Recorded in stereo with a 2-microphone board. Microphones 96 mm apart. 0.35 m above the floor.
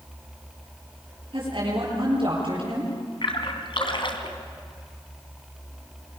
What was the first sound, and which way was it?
A woman speaking, 65° right (ahead or behind).